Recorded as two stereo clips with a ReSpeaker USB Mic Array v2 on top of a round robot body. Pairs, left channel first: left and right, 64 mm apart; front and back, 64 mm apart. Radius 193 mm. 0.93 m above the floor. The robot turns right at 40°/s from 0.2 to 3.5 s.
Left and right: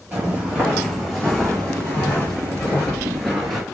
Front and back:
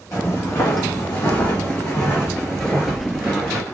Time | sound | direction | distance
0.1 | footsteps | 30° right | 2.5 m